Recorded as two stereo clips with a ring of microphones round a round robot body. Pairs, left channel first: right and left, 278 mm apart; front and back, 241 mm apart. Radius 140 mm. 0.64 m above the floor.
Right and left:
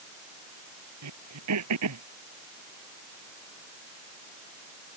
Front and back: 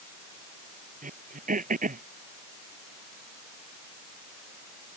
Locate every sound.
1.0 s throat clearing: 125° left